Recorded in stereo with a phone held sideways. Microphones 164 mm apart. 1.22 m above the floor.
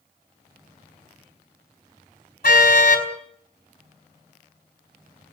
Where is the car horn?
60° left (ahead or behind), 4 m.